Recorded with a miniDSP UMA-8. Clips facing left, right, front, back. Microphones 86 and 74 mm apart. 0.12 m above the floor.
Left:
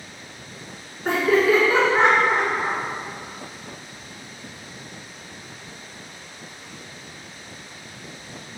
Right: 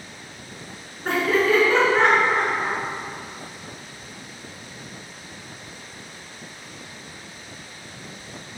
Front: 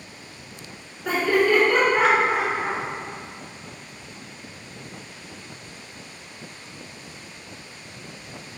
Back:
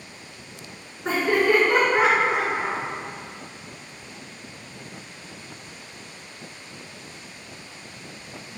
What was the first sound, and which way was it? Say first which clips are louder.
Laughter: left 2 dB, front 1 dB; 175° left.